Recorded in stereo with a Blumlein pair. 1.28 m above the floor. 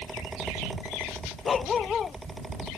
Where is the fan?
10° right.